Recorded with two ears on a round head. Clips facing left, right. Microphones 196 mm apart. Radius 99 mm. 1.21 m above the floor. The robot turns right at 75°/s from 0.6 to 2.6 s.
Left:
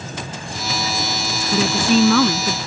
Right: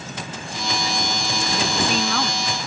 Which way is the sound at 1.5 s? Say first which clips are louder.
Left 8 dB; 60° left.